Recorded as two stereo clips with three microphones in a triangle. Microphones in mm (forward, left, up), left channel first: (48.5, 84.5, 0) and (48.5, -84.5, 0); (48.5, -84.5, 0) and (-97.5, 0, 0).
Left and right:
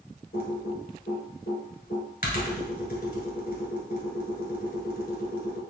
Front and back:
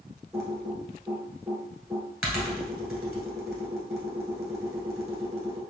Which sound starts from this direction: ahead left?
Typing on a keyboard, at 0.3 s.